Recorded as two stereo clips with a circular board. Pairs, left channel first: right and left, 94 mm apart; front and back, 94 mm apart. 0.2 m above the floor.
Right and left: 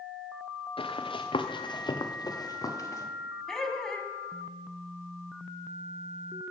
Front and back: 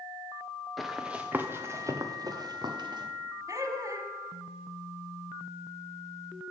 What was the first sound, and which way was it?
Running footsteps, 90° right.